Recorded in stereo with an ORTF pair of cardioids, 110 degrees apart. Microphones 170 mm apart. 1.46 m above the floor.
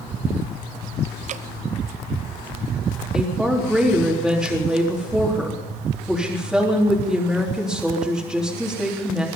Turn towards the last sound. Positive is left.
turn(degrees=-5)